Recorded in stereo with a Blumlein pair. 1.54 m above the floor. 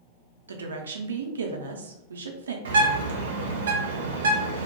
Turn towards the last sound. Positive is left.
turn(degrees=-65)